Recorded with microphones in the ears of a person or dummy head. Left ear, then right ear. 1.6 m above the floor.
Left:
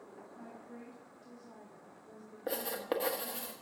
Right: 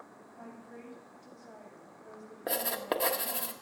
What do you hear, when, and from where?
0.4 s a woman speaking: 5° right (ahead or behind), 6.5 m
2.5 s writing: 10° right (ahead or behind), 1.2 m